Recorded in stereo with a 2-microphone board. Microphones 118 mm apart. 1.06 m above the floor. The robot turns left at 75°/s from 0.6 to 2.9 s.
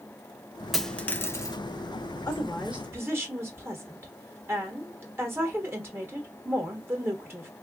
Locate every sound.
0.7 s a dropped coin: centre (ahead or behind), 0.6 m; by 1.6 s 30° left (ahead or behind), 0.6 m
2.3 s a woman speaking: 25° left, 1.1 m; by 7.5 s 20° right, 1.1 m